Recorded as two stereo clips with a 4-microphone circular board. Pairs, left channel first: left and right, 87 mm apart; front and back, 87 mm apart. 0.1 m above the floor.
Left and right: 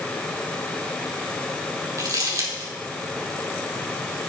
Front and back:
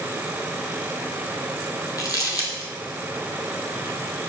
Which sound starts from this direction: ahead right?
Crumpling, at 2.0 s.